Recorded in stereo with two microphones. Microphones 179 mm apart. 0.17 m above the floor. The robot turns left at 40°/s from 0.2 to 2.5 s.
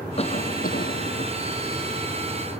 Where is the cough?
145° left; by 1.3 s 100° left.